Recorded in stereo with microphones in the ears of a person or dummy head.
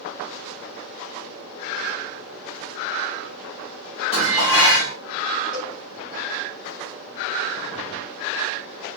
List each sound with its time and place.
4.1 s dishes clattering: 25° left (ahead or behind), 1.4 m
5.5 s a cowbell: 30° left (ahead or behind), 2 m